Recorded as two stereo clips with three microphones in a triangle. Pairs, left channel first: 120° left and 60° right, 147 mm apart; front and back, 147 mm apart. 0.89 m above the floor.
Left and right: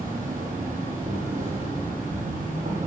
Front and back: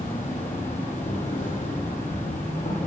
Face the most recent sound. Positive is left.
turn(degrees=-30)